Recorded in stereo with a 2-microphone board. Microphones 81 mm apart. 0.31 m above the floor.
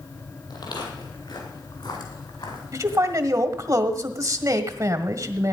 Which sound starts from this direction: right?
A man speaking, at 2.7 s.